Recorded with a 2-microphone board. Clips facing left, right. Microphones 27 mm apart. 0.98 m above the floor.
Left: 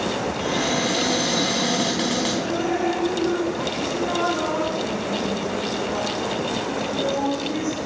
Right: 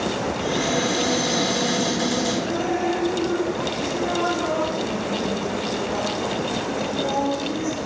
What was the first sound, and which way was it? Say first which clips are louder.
A cupboard door: even; 75° left (ahead or behind).